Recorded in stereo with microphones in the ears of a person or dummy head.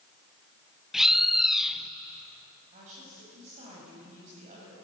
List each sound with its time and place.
0.9 s a bird: 5° right (ahead or behind), 0.8 m
2.7 s a woman speaking: 40° right (ahead or behind), 7.5 m